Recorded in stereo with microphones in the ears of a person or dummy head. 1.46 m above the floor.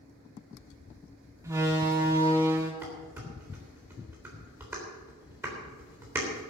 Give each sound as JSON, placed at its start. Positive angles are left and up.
{"t": 1.4, "sound": "a door slam", "side_deg": -20, "distance_m": 1.9}
{"t": 2.8, "sound": "dishes clattering", "side_deg": -15, "distance_m": 3.5}